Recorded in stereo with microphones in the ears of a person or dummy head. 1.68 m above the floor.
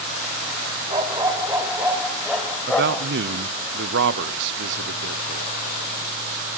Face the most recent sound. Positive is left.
turn(degrees=-65)  # may be behind; listen again after turning